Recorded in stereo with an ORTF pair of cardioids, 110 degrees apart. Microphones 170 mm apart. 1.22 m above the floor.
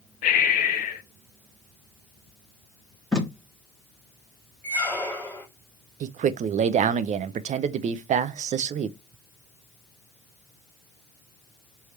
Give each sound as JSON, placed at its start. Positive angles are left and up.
{"t": 0.2, "sound": "breathing", "azimuth_deg": 60, "distance_m": 0.9}
{"t": 3.1, "sound": "tape being pulled", "azimuth_deg": 5, "distance_m": 1.6}
{"t": 4.6, "sound": "a squeak", "azimuth_deg": 10, "distance_m": 1.6}
{"t": 6.0, "sound": "a man speaking", "azimuth_deg": -45, "distance_m": 0.6}